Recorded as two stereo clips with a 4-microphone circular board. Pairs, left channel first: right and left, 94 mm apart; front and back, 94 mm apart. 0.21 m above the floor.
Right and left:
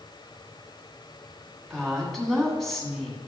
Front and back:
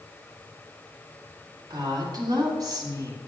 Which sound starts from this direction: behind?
A woman speaking, at 1.7 s.